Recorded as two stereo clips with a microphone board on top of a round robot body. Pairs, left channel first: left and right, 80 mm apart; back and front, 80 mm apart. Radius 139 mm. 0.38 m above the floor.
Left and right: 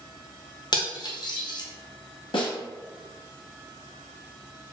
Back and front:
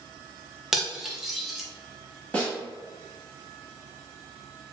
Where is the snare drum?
105° left, 0.9 m.